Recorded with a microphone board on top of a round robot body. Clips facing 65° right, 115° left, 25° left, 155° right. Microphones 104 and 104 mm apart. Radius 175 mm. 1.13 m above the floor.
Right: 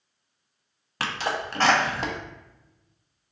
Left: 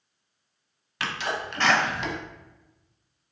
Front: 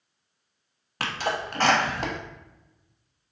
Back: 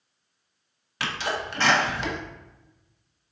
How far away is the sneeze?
About 1.2 m.